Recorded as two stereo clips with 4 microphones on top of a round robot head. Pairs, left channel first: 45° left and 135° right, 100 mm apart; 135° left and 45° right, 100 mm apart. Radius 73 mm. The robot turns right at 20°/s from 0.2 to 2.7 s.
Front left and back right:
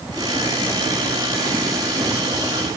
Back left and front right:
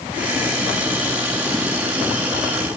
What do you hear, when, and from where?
Only background noise.